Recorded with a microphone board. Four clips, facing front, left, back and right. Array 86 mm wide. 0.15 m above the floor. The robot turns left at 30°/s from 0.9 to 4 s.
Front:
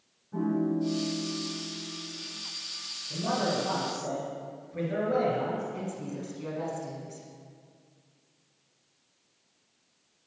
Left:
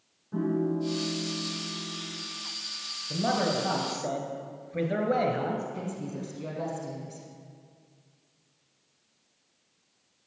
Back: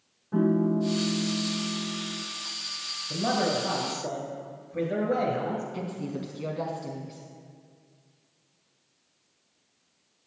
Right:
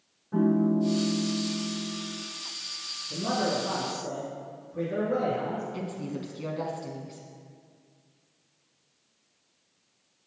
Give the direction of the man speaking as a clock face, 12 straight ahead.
8 o'clock.